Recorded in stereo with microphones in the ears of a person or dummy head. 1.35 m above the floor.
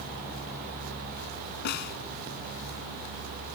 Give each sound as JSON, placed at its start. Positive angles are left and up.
{"t": 1.6, "sound": "a snare drum", "side_deg": 50}